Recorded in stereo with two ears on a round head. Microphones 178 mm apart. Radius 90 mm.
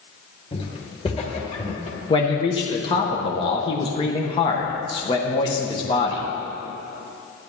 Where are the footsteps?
30° left (ahead or behind), 1.9 m.